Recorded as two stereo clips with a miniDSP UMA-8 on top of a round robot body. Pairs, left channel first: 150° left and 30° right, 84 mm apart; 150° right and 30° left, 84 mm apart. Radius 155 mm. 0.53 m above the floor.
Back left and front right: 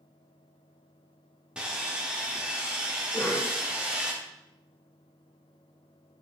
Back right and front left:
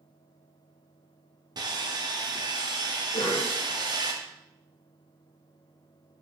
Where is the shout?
I don't hear a shout.